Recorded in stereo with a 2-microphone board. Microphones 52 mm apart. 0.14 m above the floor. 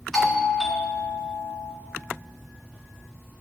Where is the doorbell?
5° left (ahead or behind), 1.7 m.